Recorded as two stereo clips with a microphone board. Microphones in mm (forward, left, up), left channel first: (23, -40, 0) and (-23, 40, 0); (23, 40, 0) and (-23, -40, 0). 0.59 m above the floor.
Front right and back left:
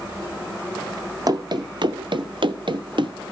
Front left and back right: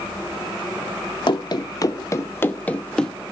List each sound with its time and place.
1.3 s running footsteps: 85° left, 1.1 m; by 3.1 s 140° left, 1.2 m